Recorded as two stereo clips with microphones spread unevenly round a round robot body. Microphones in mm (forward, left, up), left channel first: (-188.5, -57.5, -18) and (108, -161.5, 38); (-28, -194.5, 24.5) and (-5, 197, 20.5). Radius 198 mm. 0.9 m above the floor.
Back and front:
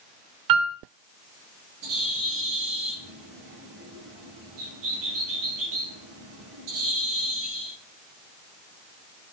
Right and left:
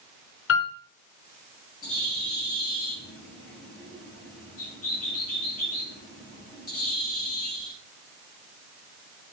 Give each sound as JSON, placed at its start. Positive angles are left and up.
{"t": 0.5, "sound": "a piano", "azimuth_deg": -35, "distance_m": 3.5}
{"t": 1.8, "sound": "a bird", "azimuth_deg": -35, "distance_m": 9.5}